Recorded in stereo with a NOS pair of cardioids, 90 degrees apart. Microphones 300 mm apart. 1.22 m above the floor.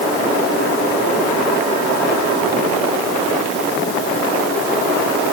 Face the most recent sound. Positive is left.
No sound to turn to.